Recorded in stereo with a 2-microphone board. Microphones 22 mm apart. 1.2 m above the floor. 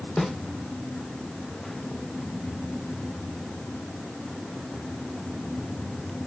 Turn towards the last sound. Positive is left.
turn(degrees=25)  # may be behind; listen again after turning